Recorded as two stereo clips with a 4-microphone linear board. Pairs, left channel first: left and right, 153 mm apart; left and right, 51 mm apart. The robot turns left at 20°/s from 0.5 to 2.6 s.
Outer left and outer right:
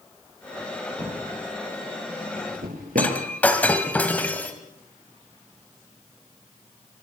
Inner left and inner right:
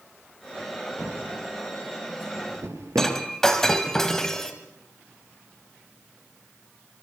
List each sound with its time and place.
1.0 s a drawer: 50° right (ahead or behind), 5 m; by 3.2 s 80° right, 5 m
3.0 s breaking glass: 10° left (ahead or behind), 2 m